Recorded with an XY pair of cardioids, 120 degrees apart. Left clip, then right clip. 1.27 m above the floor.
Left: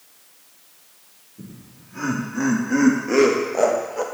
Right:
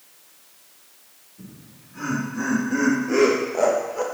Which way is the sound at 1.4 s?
40° left.